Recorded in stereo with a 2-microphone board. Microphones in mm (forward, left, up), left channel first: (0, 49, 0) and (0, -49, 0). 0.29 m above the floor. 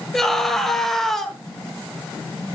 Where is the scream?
5° left (ahead or behind), 1.5 m.